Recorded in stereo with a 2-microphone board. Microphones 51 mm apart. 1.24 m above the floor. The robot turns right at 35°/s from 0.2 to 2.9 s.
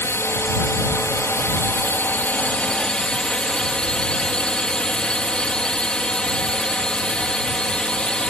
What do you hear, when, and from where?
0.0 s a drone: 65° left; by 8.3 s 160° left